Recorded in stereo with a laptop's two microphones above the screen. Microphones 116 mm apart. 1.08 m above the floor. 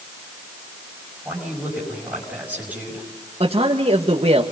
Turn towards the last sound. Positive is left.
turn(degrees=-60)  # may be behind; listen again after turning